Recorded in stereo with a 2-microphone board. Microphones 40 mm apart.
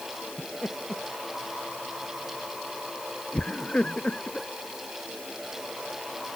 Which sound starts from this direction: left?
Laughter, at 0.4 s.